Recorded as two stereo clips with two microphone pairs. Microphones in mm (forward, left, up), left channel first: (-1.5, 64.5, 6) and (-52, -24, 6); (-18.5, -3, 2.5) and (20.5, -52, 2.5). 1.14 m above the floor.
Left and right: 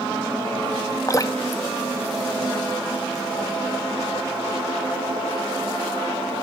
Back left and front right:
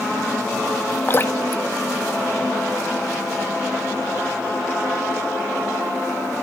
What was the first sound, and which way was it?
Dripping, 95° left.